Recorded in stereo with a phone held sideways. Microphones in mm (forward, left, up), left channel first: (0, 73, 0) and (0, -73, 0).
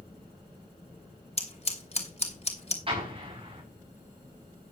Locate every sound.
1.4 s scissors: 45° left (ahead or behind), 2.5 m
2.9 s an explosion: 40° right (ahead or behind), 4 m